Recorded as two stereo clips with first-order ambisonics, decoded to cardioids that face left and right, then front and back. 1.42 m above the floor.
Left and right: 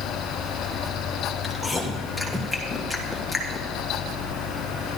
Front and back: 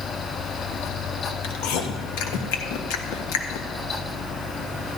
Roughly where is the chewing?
Ahead.